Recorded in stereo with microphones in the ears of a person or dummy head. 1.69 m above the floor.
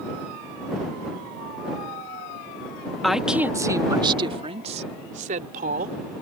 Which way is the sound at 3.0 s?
Centre (ahead or behind).